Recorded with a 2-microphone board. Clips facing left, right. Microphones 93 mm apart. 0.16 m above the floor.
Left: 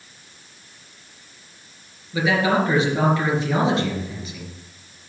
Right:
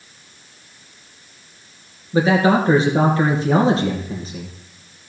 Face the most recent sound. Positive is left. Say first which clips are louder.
# right 4 dB
turn(degrees=-35)  # may be behind; listen again after turning